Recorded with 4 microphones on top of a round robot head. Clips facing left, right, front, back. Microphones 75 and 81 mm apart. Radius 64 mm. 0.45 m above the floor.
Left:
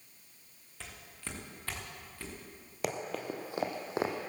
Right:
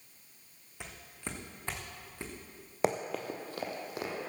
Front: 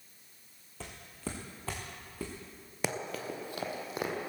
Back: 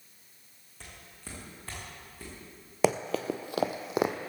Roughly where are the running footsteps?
Behind.